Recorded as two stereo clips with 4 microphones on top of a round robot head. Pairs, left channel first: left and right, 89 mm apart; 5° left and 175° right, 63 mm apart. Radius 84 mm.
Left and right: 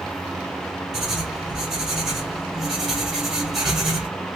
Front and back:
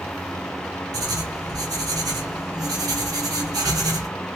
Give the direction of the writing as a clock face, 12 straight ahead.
6 o'clock.